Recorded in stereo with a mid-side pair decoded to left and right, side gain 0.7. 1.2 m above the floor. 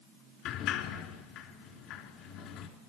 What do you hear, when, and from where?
0.5 s a sliding door: 60° left, 3.5 m